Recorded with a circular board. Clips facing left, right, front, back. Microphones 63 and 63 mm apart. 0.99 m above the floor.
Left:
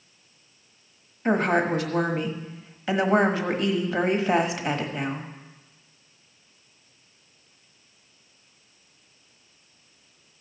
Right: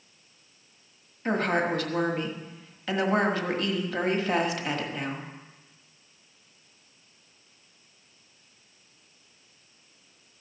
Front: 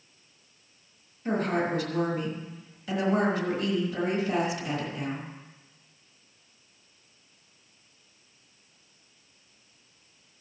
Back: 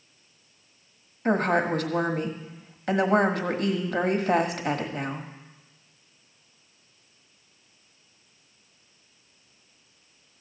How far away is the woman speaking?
About 1.4 m.